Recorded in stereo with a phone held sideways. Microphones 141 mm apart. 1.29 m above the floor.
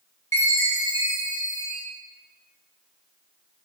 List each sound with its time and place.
0.3 s a chime: 20° left (ahead or behind), 0.9 m